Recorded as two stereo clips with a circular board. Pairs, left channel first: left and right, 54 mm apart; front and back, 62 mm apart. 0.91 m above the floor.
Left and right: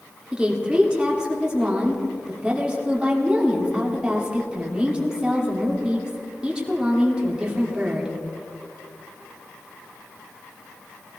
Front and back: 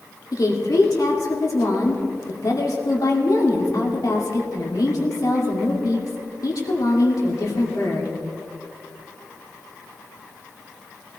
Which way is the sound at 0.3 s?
20° right.